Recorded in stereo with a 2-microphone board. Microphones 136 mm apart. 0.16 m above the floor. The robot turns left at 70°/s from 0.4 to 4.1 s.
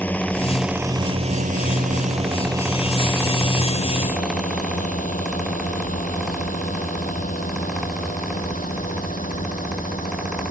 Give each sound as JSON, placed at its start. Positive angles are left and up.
{"t": 0.0, "sound": "a drone", "side_deg": 10}